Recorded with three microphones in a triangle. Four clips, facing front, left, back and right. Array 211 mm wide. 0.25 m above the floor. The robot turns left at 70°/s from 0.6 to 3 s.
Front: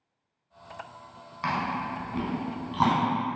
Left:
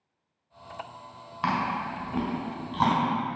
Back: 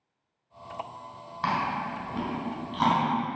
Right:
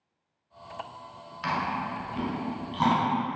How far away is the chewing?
About 0.9 m.